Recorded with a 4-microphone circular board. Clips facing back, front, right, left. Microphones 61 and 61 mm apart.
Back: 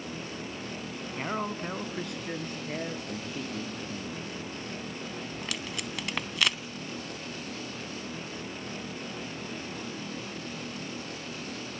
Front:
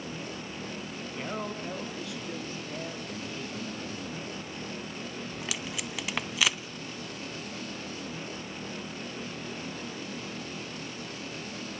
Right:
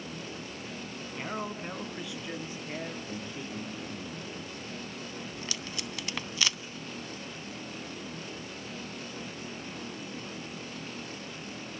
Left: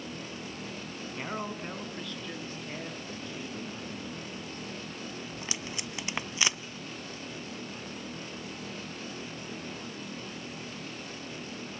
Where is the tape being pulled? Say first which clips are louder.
Even, even; 80° left, 0.7 m.